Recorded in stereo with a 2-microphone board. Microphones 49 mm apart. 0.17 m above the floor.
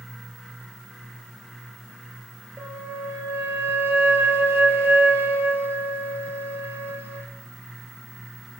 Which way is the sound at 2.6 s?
55° right (ahead or behind).